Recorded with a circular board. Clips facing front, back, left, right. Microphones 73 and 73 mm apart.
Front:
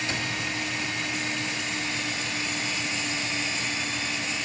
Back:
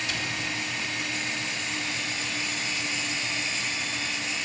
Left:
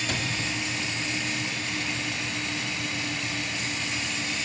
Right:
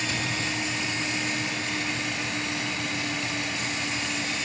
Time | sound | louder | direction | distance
0.1 | a cupboard door | front 2 dB, even | 60° left | 3.5 m